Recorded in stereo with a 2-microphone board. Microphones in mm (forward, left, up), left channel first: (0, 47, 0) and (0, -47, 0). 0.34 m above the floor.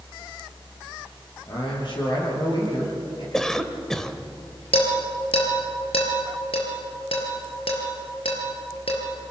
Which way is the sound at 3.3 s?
5° left (ahead or behind).